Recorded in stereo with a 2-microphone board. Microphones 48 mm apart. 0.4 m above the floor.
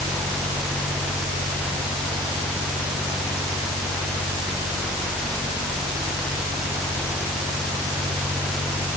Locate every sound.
Only background noise.